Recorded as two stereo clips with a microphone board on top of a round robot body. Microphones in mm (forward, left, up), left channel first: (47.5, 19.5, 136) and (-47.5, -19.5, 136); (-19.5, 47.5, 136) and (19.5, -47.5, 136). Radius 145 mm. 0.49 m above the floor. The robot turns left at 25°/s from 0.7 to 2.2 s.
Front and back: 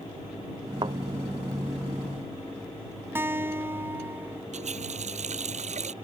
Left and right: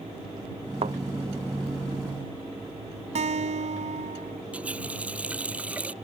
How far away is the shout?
I don't hear a shout.